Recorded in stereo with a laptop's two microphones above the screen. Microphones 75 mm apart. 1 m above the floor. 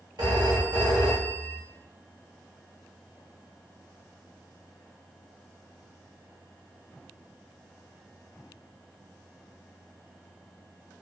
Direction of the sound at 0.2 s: 75° right (ahead or behind).